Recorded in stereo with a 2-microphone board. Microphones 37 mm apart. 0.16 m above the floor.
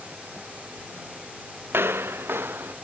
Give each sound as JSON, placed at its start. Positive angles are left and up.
{"t": 1.7, "sound": "footsteps", "side_deg": -75}